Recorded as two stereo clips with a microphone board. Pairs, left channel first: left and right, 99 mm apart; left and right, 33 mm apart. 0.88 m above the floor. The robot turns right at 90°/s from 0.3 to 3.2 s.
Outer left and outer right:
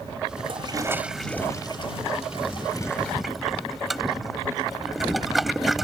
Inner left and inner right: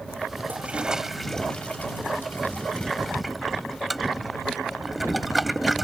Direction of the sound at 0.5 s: 65° right (ahead or behind).